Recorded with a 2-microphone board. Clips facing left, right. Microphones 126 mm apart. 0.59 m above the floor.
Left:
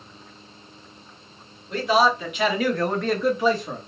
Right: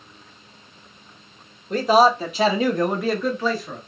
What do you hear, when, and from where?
1.7 s a man speaking: 45° right (ahead or behind), 1.7 m; by 3.8 s 25° left (ahead or behind), 1.2 m